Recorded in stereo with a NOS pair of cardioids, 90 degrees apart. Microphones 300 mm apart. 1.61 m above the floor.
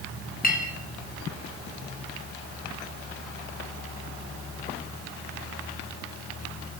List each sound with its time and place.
0.4 s a clink: 30° left, 1.5 m